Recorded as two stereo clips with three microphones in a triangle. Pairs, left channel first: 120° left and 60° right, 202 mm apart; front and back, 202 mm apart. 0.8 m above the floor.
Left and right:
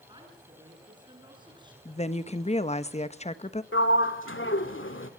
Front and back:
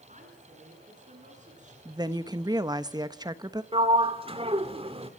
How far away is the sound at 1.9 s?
About 1.0 m.